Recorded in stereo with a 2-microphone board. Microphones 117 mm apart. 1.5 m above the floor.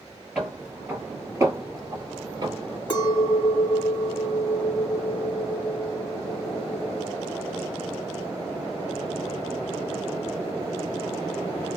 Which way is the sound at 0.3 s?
5° right (ahead or behind).